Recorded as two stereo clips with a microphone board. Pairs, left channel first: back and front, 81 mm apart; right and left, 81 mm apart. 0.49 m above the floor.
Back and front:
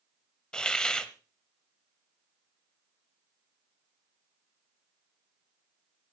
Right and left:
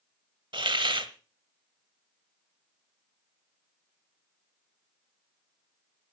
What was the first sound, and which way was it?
A hiss, 100° left.